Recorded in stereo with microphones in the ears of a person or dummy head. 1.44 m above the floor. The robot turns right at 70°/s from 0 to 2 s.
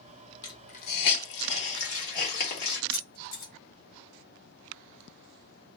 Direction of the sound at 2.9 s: 50° left (ahead or behind).